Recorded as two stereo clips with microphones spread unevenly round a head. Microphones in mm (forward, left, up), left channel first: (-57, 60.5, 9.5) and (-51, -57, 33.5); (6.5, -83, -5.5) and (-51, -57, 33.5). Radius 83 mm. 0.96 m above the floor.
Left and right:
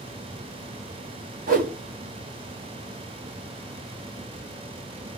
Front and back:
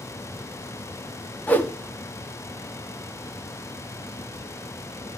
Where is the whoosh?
75° right, 2 m.